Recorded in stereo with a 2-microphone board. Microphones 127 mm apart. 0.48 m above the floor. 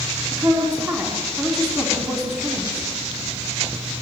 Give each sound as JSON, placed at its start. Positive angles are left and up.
{"t": 0.3, "sound": "a woman speaking", "side_deg": -20, "distance_m": 4.5}